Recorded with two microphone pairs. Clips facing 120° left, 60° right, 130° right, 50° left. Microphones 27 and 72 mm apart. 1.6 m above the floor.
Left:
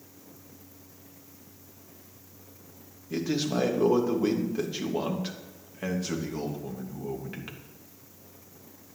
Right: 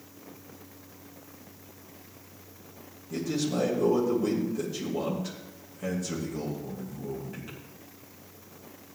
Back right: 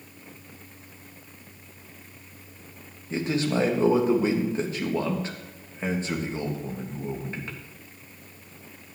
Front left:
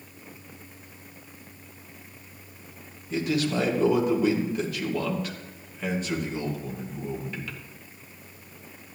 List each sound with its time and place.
3.1 s a man speaking: 170° left, 3 m